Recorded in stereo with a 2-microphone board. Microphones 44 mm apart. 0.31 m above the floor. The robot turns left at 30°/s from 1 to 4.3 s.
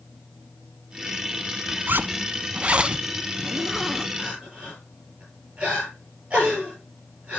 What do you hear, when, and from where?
1.9 s a zipper: 125° right, 0.6 m; by 4.1 s 170° left, 0.6 m
4.2 s crying: 20° right (ahead or behind), 8 m; by 7.4 s 25° right (ahead or behind), 8 m